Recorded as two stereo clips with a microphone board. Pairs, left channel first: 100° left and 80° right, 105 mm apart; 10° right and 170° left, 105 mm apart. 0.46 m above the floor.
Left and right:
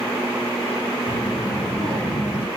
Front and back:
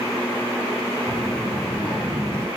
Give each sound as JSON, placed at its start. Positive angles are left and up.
{"t": 1.1, "sound": "a child speaking", "azimuth_deg": 125, "distance_m": 3.0}